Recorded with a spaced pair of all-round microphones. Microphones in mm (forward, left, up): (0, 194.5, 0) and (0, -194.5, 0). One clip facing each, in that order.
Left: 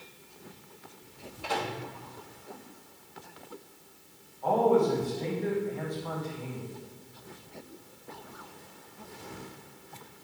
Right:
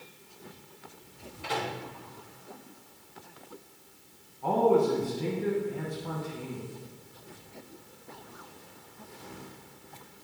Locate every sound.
1.4 s a microwave: 35° right (ahead or behind), 3.5 m
4.4 s a man speaking: 40° right (ahead or behind), 1.8 m